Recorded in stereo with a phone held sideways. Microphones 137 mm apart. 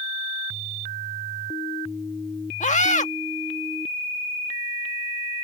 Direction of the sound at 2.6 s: 60° left (ahead or behind).